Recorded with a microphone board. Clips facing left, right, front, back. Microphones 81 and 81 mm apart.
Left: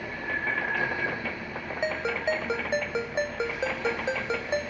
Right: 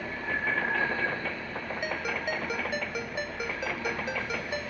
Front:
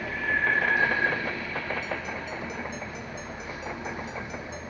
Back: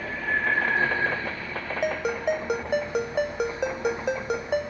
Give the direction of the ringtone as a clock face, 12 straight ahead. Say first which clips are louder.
Left 6 dB, back 8 dB; 7 o'clock.